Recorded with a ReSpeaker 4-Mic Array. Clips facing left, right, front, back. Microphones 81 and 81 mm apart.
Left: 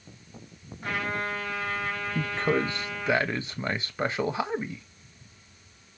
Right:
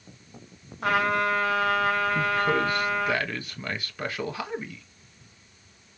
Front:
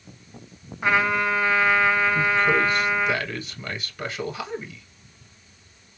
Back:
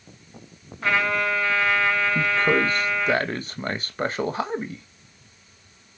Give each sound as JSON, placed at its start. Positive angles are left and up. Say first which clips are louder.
{"t": 0.8, "sound": "a trumpet", "louder": "right 7 dB, front 1 dB", "azimuth_deg": -75, "distance_m": 2.5}
{"t": 2.1, "sound": "a man speaking", "louder": "right 3 dB, front 1 dB", "azimuth_deg": 145, "distance_m": 1.3}